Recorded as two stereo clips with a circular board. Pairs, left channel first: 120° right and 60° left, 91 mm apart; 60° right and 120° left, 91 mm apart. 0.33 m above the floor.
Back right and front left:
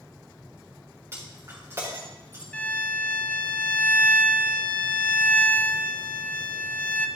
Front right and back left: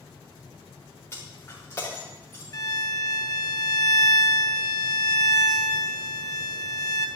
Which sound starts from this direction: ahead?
Breaking glass, at 1.1 s.